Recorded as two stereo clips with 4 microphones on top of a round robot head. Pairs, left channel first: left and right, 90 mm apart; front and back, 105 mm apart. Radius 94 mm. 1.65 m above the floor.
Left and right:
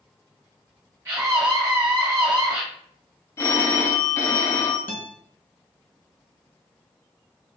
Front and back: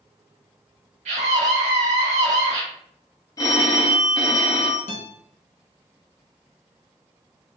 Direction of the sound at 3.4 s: 45° left.